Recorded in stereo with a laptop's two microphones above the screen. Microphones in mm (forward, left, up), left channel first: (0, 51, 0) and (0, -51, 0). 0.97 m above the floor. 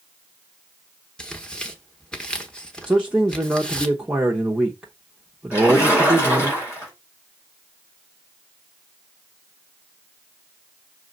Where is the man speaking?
10° right (ahead or behind), 0.6 m.